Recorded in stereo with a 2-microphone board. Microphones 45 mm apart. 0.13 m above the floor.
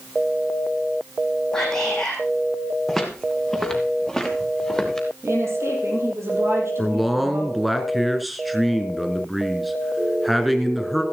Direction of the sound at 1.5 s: 10° left (ahead or behind).